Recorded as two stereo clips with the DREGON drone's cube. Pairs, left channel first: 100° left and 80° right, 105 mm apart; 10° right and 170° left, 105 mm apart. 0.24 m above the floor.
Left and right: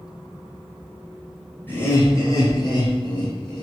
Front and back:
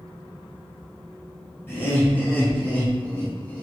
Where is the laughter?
45° left, 1.5 m; by 3.6 s 65° left, 3 m.